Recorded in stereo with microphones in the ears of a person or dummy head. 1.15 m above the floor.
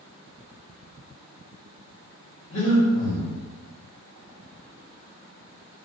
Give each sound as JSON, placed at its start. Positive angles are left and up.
{"t": 2.5, "sound": "breathing", "side_deg": 35, "distance_m": 1.0}